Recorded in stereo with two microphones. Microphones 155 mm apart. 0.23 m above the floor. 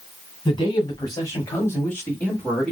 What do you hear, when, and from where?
0.5 s a man speaking: 30° left (ahead or behind), 1.4 m; by 2.7 s 5° left (ahead or behind), 1.4 m